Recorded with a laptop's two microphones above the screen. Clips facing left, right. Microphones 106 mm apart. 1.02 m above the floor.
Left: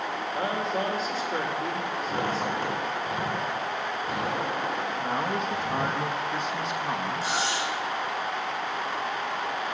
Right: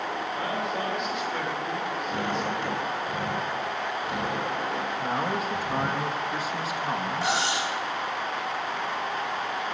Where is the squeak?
45° left (ahead or behind), 5.5 m.